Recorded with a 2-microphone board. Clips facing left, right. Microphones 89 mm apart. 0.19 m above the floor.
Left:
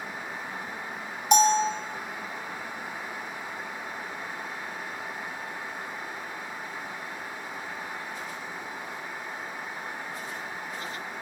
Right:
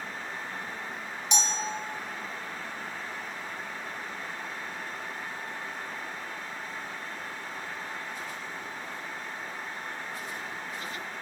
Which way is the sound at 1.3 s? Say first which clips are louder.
Left 12 dB; 45° left (ahead or behind).